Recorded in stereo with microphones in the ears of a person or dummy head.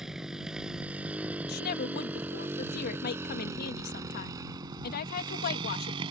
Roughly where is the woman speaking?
Left.